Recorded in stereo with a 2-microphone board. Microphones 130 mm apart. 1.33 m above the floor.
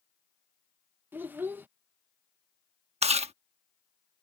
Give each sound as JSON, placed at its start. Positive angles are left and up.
{"t": 1.1, "sound": "a child speaking", "side_deg": -15}
{"t": 3.0, "sound": "chewing", "side_deg": -50}